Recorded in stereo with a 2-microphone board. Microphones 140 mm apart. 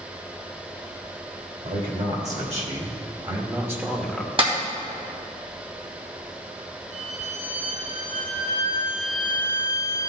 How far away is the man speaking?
About 1.9 m.